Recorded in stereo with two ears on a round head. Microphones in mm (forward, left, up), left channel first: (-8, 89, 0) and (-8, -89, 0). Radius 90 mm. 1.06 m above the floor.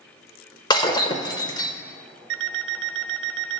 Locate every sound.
0.7 s breaking glass: 20° left (ahead or behind), 1.1 m
2.3 s an alarm clock: 60° right (ahead or behind), 0.8 m